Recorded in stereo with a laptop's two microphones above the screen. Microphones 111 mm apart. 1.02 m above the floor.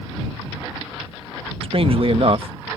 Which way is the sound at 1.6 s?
55° right (ahead or behind).